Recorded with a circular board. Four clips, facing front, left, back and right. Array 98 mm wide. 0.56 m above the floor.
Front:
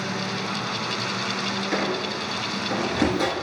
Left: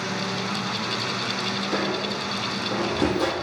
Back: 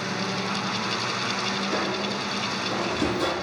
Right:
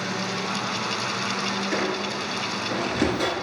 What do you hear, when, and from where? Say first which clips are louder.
1.7 s a squeak: left 2 dB, front 3 dB; 35° right, 1.3 m